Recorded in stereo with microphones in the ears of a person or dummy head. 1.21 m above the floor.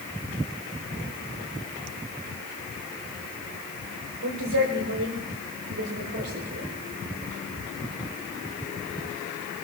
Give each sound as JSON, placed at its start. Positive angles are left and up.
{"t": 4.2, "sound": "a woman speaking", "side_deg": -85, "distance_m": 3.5}